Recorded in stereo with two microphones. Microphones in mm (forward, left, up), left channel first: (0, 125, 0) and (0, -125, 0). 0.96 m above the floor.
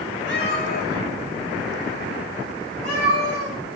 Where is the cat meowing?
45° left (ahead or behind), 2.5 m; by 3.6 s 25° left (ahead or behind), 6 m.